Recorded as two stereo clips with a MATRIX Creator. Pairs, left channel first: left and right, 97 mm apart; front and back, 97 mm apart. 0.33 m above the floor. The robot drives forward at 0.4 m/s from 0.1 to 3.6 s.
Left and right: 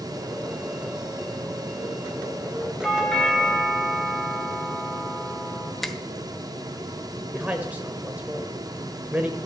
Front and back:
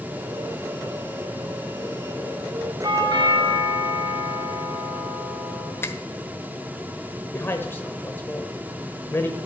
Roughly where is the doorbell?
Behind.